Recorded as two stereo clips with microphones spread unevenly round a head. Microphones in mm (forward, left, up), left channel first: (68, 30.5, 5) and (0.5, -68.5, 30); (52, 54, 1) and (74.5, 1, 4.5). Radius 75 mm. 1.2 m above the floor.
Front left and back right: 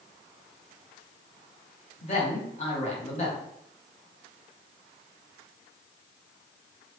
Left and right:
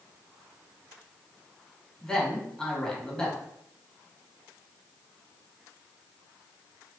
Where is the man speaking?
35° left, 1.9 m.